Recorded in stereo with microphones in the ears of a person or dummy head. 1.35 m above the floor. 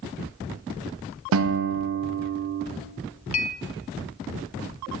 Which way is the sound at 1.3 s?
70° right (ahead or behind).